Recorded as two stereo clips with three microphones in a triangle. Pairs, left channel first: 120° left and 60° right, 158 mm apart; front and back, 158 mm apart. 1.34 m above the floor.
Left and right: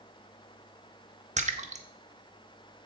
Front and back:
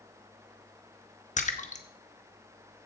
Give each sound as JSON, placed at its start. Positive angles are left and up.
{"t": 1.4, "sound": "a splash", "azimuth_deg": -30, "distance_m": 1.0}